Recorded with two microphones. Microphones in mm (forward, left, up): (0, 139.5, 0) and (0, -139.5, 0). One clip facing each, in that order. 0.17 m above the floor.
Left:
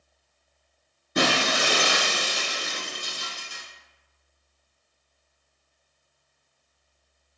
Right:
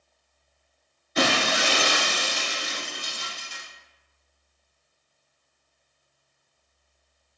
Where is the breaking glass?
60° left (ahead or behind), 1.2 m.